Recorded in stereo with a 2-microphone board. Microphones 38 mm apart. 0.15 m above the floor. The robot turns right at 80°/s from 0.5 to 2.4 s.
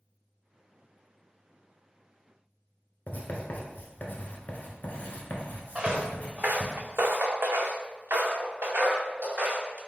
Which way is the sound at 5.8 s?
15° right (ahead or behind).